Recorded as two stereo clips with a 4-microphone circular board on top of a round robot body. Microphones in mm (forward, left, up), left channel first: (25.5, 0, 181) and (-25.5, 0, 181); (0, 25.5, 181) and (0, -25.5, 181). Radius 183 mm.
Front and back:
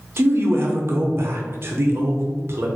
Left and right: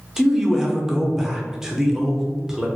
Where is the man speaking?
165° right, 0.9 m.